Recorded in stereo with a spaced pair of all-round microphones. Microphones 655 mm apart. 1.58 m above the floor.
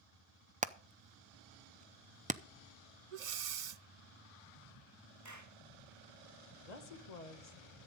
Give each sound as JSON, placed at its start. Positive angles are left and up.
{"t": 0.6, "sound": "hammering", "side_deg": -10, "distance_m": 0.5}
{"t": 3.1, "sound": "breathing", "side_deg": -80, "distance_m": 0.7}
{"t": 5.2, "sound": "a clap", "side_deg": -25, "distance_m": 1.8}
{"t": 6.6, "sound": "a woman speaking", "side_deg": 80, "distance_m": 1.8}